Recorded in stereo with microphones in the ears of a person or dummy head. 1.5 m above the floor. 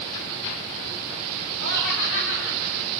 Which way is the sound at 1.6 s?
75° left (ahead or behind).